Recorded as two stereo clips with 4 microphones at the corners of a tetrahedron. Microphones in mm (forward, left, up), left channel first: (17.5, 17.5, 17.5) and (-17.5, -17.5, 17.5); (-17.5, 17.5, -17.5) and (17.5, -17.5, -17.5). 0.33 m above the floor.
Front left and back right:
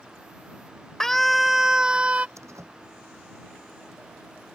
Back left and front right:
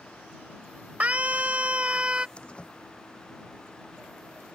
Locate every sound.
1.0 s a scream: 30° right; by 2.3 s 95° right
2.4 s a door slam: 155° right